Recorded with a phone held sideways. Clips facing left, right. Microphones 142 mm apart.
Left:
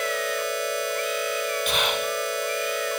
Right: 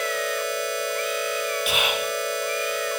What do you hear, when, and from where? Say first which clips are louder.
1.7 s whispering: even; 5° right (ahead or behind), 1.1 m